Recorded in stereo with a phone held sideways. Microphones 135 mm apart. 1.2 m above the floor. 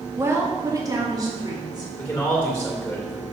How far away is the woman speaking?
About 2 m.